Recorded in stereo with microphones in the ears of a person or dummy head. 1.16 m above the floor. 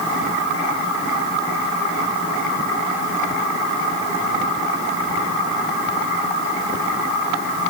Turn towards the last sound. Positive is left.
No sound to turn to.